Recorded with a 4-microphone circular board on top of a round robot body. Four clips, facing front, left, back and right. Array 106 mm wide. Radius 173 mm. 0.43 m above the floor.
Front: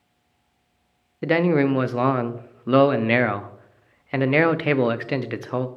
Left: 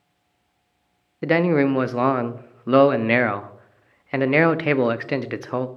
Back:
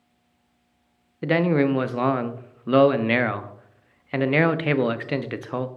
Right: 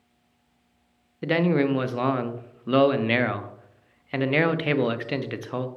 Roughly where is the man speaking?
Left.